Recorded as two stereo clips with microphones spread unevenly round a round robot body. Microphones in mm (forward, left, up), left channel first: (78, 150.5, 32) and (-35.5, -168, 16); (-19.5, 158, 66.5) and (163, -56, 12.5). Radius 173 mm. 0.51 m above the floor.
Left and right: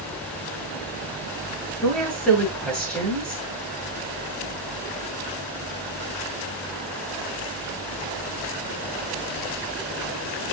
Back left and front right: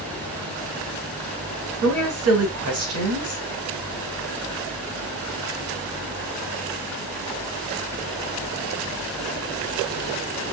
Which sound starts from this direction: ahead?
A woman speaking, at 1.8 s.